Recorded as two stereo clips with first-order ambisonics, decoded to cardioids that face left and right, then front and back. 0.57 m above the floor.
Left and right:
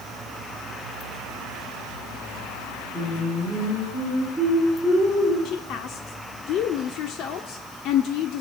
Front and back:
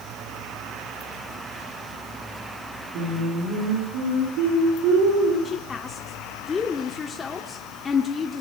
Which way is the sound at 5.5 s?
65° left.